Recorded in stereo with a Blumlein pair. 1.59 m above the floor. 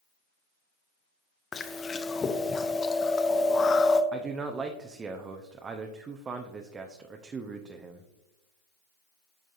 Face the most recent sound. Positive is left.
turn(degrees=-20)